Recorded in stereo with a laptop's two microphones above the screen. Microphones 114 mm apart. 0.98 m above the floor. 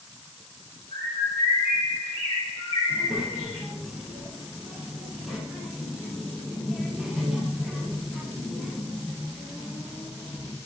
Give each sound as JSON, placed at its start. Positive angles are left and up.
{"t": 0.9, "sound": "a bird", "side_deg": 45, "distance_m": 1.1}
{"t": 2.9, "sound": "a child speaking", "side_deg": -5, "distance_m": 0.7}